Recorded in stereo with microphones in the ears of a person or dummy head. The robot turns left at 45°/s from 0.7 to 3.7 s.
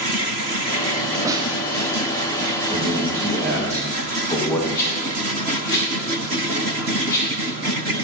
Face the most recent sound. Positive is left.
turn(degrees=20)  # may be behind; listen again after turning